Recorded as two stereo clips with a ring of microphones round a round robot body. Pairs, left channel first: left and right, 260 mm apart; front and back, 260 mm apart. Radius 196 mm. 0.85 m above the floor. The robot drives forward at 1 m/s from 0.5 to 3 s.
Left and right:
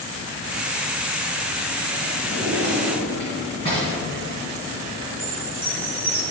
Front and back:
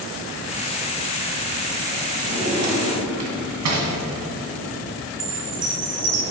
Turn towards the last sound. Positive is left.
turn(degrees=155)